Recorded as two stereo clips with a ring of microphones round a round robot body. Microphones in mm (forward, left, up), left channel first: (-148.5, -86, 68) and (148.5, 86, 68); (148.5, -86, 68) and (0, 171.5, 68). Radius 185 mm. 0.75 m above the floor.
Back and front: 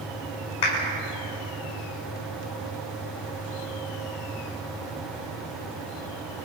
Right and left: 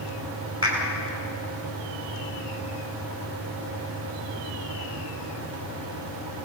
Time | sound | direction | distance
0.6 | a clap | 165° right | 5.5 m